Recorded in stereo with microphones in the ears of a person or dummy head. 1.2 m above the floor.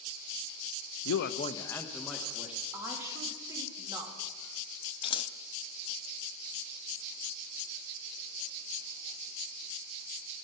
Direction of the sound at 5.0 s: 25° left (ahead or behind).